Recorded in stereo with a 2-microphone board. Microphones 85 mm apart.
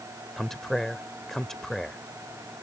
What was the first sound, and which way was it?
A man speaking, 5° left (ahead or behind).